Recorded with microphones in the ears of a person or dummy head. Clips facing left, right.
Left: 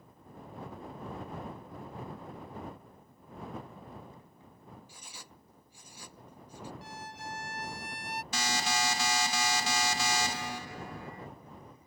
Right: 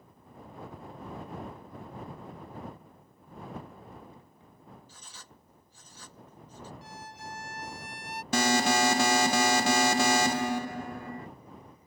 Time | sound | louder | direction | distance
4.9 | writing | left 1 dB | 10° left (ahead or behind) | ?
6.8 | a violin | left 1 dB | 60° left (ahead or behind) | ?
8.3 | an alarm | right 9 dB | 55° right (ahead or behind) | ?